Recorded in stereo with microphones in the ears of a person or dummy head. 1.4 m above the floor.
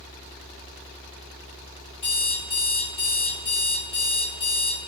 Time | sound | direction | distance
2.0 | an alarm clock | 35° left (ahead or behind) | 1.1 m